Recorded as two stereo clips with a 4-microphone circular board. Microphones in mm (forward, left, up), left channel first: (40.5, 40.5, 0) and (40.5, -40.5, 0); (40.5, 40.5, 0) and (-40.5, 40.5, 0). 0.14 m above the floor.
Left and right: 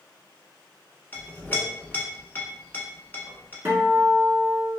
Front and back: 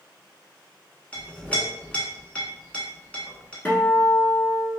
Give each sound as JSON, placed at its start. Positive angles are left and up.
{"t": 1.1, "sound": "a clink", "azimuth_deg": 55, "distance_m": 0.7}
{"t": 3.6, "sound": "a guitar", "azimuth_deg": -50, "distance_m": 0.8}